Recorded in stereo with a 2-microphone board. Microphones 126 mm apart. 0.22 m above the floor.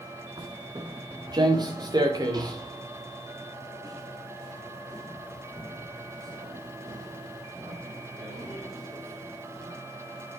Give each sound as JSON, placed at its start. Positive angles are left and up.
{"t": 0.4, "sound": "footsteps", "side_deg": -40, "distance_m": 1.8}